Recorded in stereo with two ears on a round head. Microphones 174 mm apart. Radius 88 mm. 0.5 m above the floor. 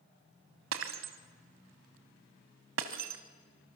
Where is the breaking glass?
70° right (ahead or behind), 1.7 m.